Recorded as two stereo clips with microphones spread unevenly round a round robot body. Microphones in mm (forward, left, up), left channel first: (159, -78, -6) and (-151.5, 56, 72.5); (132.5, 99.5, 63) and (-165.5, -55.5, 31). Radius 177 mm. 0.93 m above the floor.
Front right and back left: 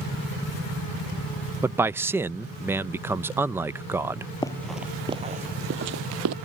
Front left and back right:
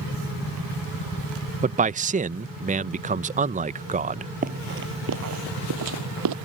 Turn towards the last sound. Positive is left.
turn(degrees=175)